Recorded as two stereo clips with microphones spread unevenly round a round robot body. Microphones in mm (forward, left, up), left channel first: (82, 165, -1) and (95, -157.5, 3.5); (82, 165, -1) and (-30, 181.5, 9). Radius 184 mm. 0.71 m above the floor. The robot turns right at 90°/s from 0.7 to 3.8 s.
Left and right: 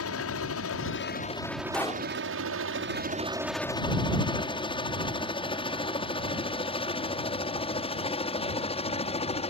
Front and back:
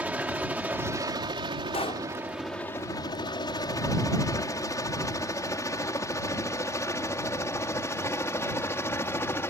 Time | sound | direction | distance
0.0 | a helicopter | 100° left | ?
1.7 | a pop | 5° left | ?